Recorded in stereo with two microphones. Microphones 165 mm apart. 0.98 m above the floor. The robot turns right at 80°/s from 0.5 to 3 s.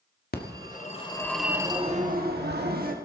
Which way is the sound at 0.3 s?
110° left.